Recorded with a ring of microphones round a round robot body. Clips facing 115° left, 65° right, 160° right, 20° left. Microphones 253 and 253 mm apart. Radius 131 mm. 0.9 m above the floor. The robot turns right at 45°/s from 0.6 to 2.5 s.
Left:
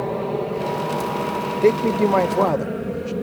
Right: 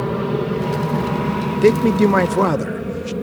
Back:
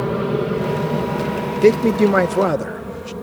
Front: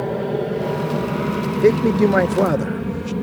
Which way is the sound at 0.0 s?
100° right.